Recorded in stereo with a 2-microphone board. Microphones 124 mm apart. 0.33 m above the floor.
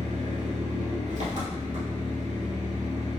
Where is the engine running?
75° right (ahead or behind), 1.2 m.